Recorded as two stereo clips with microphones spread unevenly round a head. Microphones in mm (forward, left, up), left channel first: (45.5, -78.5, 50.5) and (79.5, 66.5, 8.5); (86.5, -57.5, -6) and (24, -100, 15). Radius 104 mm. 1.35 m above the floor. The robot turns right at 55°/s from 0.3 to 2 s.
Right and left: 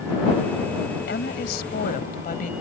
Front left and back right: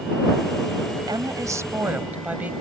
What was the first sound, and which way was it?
A woman speaking, 130° right.